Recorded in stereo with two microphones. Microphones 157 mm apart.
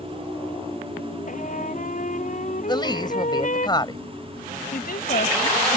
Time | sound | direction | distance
1.3 | a trumpet | 55° left (ahead or behind) | ?
2.7 | a woman speaking | 30° left (ahead or behind) | ?
4.7 | a woman speaking | 75° left (ahead or behind) | ?